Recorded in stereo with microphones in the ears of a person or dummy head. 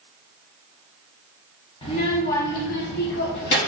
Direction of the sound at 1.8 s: 25° left (ahead or behind).